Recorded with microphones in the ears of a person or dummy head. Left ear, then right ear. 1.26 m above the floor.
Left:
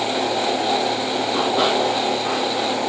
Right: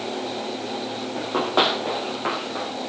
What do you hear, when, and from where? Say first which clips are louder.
1.2 s running footsteps: right 1 dB; 55° right (ahead or behind), 4 m; by 2.7 s 70° right (ahead or behind), 5.5 m